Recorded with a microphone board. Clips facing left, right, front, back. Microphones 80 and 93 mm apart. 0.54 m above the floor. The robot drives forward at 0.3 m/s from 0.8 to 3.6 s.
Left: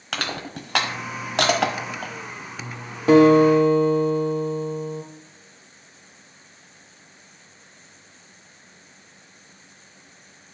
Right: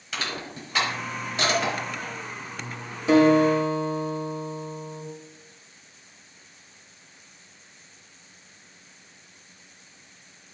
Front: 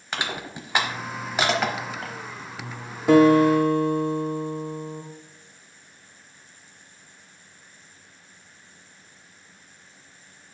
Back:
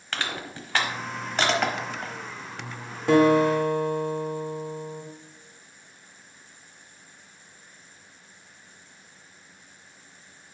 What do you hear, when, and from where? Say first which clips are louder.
0.1 s crushing: left 3 dB, front 2 dB; 75° left, 1.0 m; by 2.1 s 95° left, 1.0 m
3.1 s a guitar: left 5 dB, front 3 dB; 85° left, 1.5 m; by 5.0 s 90° left, 1.5 m